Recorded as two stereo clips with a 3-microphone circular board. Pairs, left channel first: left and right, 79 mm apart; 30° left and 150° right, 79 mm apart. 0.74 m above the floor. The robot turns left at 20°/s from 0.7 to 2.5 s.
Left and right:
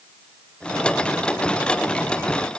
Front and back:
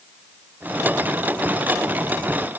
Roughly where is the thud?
No thud in this recording.